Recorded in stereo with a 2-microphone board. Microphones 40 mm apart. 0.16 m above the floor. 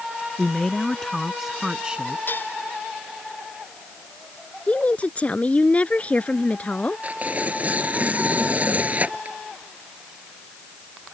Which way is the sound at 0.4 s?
25° left (ahead or behind).